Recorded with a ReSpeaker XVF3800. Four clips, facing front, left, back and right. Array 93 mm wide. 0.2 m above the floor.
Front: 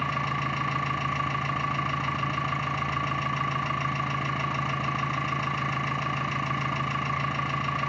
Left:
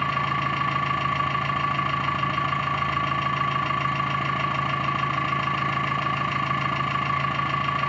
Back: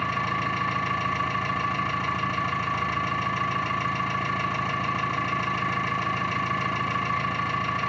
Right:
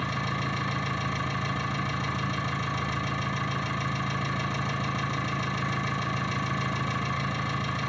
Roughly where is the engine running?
Left.